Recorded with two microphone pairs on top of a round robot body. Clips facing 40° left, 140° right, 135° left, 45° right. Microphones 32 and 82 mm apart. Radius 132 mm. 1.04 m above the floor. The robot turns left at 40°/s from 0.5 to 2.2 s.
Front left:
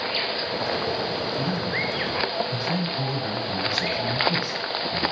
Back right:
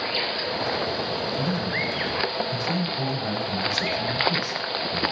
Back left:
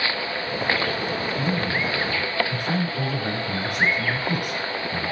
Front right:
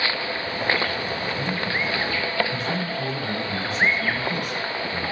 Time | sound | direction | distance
1.4 | a man speaking | 140° left | 8.5 m